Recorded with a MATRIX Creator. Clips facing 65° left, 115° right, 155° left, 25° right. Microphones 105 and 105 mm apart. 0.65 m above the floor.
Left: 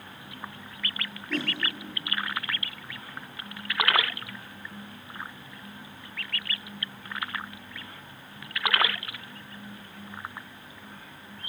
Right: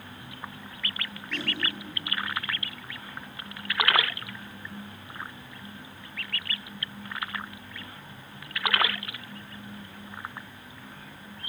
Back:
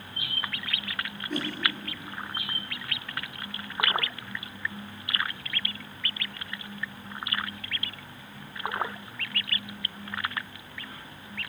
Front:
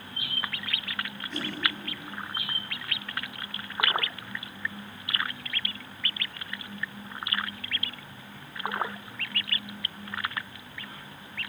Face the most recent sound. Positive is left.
turn(degrees=120)